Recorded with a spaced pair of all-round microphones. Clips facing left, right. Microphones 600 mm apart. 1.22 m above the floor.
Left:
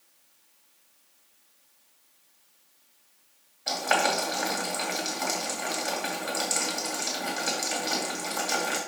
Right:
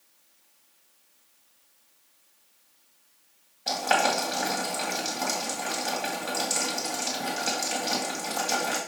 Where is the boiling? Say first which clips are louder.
Right 1 dB; 55° right (ahead or behind), 2.5 m.